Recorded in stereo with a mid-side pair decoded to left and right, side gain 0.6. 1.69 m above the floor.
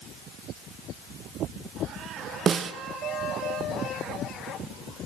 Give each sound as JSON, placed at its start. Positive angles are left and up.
{"t": 2.5, "sound": "a snare drum", "azimuth_deg": -35, "distance_m": 1.1}